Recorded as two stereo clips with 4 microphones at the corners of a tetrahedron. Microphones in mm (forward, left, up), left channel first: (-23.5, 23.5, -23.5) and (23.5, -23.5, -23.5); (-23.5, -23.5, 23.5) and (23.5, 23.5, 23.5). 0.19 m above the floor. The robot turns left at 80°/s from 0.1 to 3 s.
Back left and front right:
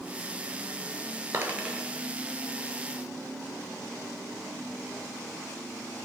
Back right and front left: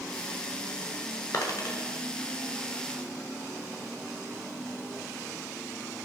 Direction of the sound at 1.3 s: 90° right.